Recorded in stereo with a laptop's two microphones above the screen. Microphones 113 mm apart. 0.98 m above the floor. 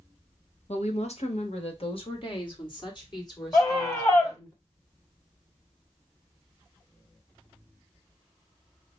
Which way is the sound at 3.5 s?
25° left (ahead or behind).